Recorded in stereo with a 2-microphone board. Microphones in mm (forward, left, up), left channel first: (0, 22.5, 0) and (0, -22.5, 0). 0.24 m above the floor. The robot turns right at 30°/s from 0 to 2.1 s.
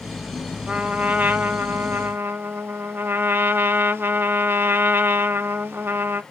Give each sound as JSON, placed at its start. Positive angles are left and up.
{"t": 0.7, "sound": "a trumpet", "azimuth_deg": -160, "distance_m": 0.7}